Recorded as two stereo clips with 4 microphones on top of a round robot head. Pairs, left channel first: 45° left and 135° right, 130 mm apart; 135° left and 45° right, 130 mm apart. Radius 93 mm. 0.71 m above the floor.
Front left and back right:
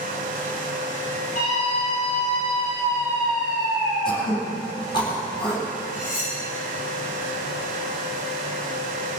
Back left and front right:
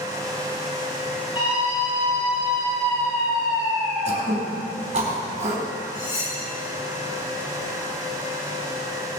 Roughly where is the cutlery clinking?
Left.